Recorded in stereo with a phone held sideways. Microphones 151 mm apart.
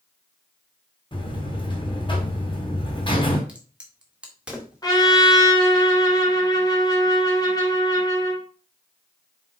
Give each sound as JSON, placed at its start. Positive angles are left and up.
{"t": 1.1, "sound": "a buzzer", "side_deg": 35, "distance_m": 2.0}
{"t": 3.5, "sound": "a crack", "side_deg": -5, "distance_m": 1.7}
{"t": 4.8, "sound": "a trumpet", "side_deg": 25, "distance_m": 1.7}